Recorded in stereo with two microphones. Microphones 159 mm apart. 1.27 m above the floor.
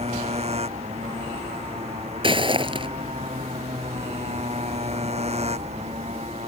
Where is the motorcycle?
40° right (ahead or behind).